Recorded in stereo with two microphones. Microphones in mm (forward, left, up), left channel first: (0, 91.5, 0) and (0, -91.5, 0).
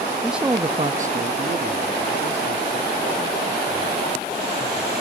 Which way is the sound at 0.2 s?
5° left (ahead or behind).